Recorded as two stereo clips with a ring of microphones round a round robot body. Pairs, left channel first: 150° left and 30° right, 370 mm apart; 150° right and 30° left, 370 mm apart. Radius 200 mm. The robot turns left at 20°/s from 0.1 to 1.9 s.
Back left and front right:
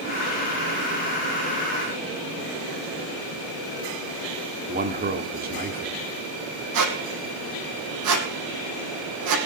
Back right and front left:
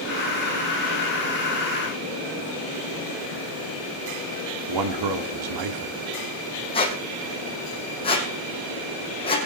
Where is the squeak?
75° right, 3 m.